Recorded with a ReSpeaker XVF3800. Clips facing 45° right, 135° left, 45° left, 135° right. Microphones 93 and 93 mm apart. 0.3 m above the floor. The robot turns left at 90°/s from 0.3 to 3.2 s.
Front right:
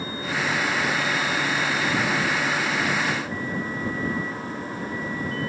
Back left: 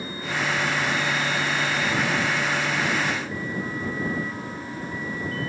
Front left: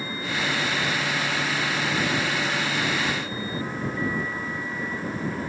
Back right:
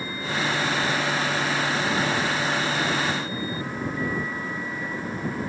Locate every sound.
Only background noise.